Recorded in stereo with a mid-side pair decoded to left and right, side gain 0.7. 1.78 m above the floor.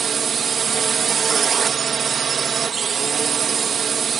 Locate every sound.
0.0 s a drone: 35° right